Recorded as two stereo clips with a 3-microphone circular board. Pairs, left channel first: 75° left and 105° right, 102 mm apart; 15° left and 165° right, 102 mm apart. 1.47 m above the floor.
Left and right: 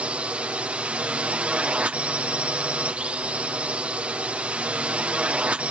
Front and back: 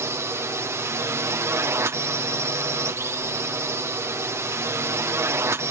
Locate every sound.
0.0 s a drone: 170° right